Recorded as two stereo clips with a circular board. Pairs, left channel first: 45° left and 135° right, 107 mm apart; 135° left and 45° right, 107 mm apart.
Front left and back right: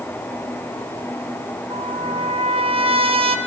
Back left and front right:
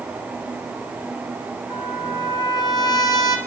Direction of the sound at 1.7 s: 170° right.